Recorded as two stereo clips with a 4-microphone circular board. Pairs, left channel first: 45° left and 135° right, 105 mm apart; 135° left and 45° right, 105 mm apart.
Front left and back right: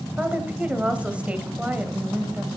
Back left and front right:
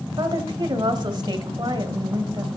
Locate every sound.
0.2 s a woman speaking: 60° right, 1.5 m